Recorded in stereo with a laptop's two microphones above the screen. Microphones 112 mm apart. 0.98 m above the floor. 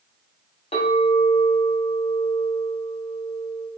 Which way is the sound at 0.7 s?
60° left (ahead or behind).